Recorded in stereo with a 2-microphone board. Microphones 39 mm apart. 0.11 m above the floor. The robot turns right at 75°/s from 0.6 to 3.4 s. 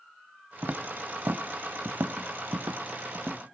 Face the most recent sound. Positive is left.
turn(degrees=-35)  # may be behind; listen again after turning